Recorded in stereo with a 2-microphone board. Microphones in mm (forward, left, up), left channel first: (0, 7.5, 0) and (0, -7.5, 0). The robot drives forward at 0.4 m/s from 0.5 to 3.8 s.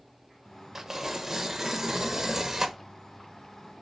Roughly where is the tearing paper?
Right.